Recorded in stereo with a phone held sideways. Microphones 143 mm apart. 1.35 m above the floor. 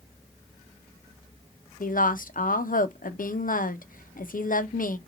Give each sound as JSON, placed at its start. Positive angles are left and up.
{"t": 1.8, "sound": "a woman speaking", "side_deg": 70, "distance_m": 0.5}